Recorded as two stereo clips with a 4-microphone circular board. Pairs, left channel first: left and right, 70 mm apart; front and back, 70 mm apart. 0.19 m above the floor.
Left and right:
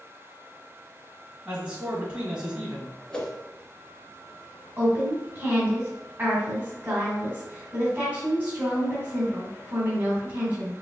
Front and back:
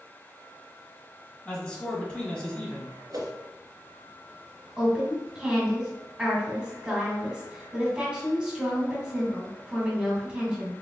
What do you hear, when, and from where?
1.4 s a man speaking: 50° right, 1.5 m
3.1 s a whoosh: 165° left, 0.9 m
4.8 s a woman speaking: 120° right, 1.7 m